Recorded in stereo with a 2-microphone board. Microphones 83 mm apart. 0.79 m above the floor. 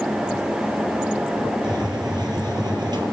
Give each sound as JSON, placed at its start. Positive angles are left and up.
{"t": 1.6, "sound": "a hiss", "side_deg": -55, "distance_m": 4.5}